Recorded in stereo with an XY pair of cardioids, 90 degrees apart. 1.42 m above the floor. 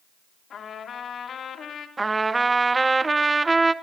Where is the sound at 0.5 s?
60° left, 3 m.